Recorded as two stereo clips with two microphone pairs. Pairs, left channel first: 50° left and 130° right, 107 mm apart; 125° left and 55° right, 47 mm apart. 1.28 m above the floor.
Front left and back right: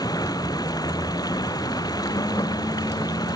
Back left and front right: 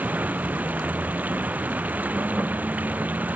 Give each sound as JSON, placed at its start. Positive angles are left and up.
{"t": 0.0, "sound": "running water", "azimuth_deg": -5}